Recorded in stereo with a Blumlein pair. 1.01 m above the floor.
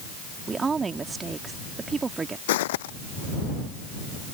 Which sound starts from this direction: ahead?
A woman speaking, at 0.5 s.